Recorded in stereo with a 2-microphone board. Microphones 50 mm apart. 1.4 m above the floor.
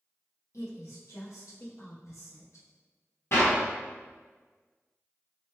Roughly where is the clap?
Left.